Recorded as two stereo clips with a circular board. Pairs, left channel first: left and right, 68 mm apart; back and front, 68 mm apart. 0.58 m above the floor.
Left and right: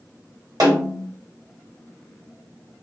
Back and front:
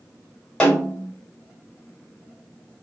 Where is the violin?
I don't hear a violin.